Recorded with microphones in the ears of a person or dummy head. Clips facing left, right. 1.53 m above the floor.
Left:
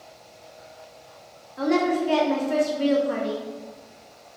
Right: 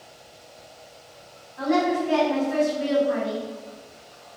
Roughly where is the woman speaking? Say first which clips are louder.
Left 1 dB; left.